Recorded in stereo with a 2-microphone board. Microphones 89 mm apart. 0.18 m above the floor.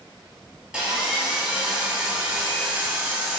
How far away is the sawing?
About 1.4 m.